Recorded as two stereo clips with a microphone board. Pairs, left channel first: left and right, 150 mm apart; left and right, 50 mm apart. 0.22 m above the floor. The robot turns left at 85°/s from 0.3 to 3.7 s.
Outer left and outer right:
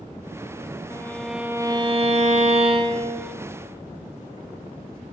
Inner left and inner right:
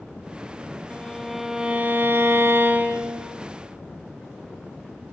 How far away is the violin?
About 1.0 m.